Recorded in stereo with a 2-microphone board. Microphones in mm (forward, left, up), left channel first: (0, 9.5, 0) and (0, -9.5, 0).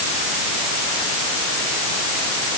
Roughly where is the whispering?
I don't hear whispering.